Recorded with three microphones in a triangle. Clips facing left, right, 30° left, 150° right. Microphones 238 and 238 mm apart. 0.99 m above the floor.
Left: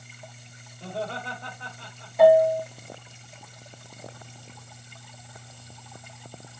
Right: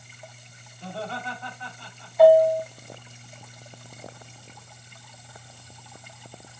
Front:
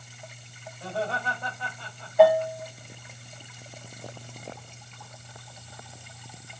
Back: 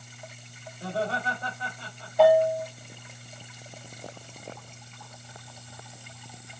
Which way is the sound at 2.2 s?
120° left.